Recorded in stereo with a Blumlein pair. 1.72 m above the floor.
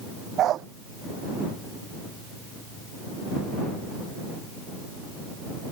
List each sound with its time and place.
0.4 s a dog barking: 30° right